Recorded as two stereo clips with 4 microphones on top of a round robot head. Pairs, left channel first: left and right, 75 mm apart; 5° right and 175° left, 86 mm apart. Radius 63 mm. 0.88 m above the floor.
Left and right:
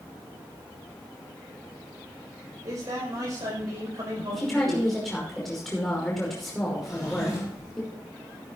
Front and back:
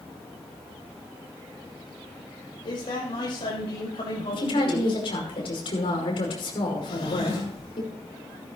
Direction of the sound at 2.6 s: 40° right.